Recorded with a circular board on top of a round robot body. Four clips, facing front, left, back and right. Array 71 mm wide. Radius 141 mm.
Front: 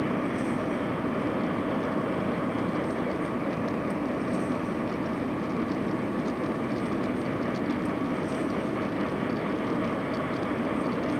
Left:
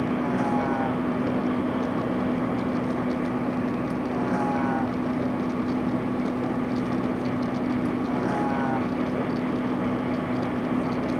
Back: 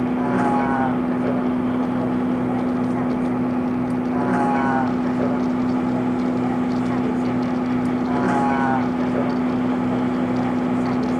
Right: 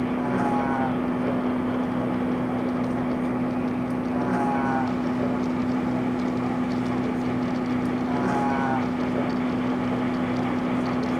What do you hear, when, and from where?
0.0 s a vehicle: 175° right